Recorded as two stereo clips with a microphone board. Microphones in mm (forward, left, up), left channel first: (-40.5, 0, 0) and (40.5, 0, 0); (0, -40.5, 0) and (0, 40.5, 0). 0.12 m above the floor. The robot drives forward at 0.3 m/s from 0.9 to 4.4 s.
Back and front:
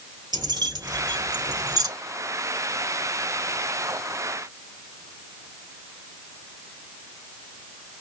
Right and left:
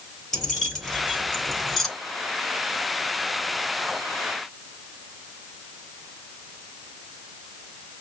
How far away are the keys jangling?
About 1.5 m.